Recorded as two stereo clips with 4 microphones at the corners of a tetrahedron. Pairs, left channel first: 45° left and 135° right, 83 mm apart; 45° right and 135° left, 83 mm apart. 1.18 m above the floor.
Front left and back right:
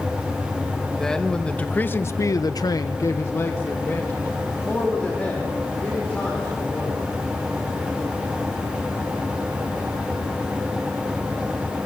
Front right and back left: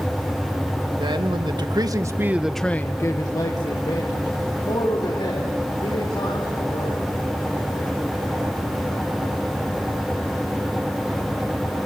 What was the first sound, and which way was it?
A man speaking, 130° left.